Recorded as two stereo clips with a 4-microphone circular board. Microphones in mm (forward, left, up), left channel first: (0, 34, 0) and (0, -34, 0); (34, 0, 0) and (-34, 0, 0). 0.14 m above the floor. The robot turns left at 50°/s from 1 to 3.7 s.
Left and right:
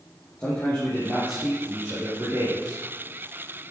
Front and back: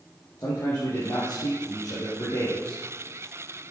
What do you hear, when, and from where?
0.4 s a man speaking: 35° left, 4.5 m; by 2.8 s 55° right, 4.5 m